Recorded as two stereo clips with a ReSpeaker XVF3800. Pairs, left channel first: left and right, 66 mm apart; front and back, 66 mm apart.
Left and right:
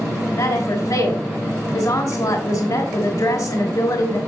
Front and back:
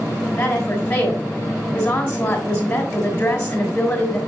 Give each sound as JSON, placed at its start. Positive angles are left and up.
{"t": 0.4, "sound": "a woman speaking", "azimuth_deg": 75, "distance_m": 3.0}